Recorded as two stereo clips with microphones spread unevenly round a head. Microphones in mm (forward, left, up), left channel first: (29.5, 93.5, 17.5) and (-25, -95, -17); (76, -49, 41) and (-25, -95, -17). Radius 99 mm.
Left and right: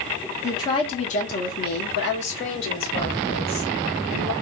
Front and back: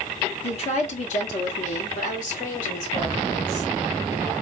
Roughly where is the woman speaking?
Ahead.